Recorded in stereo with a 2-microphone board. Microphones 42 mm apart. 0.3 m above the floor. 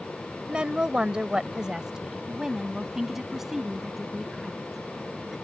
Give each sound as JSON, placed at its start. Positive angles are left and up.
{"t": 0.5, "sound": "a woman speaking", "side_deg": -25}